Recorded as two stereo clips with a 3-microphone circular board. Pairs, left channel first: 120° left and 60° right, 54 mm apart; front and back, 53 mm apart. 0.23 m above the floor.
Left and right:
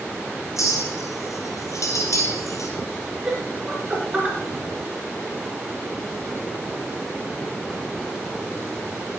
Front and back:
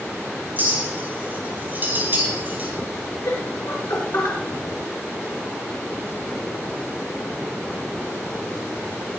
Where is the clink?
130° left, 3 m.